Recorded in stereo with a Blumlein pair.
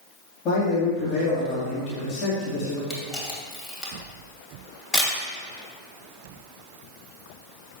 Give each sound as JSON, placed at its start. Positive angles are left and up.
{"t": 0.5, "sound": "a man speaking", "azimuth_deg": 30, "distance_m": 3.0}
{"t": 2.9, "sound": "a camera shutter", "azimuth_deg": 10, "distance_m": 2.5}